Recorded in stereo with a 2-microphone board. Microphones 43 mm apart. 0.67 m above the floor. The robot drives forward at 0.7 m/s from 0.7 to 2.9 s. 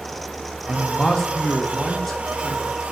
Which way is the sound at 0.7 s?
15° left (ahead or behind).